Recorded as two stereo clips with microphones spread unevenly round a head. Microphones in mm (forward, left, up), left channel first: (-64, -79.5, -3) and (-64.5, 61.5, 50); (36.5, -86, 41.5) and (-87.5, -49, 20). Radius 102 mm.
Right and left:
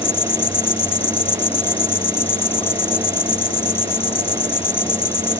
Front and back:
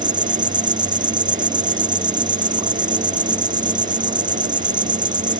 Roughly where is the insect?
Behind right.